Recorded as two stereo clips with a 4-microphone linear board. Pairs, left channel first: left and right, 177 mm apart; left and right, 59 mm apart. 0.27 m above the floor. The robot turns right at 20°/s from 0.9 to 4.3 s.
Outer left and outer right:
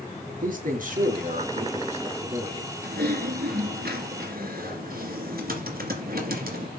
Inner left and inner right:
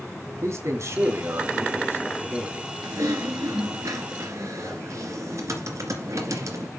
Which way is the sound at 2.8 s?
75° right (ahead or behind).